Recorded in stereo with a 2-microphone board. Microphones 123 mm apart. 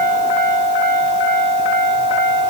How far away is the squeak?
No squeak in this recording.